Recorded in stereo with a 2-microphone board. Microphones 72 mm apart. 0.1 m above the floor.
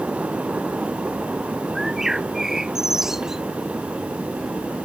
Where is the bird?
5° right (ahead or behind).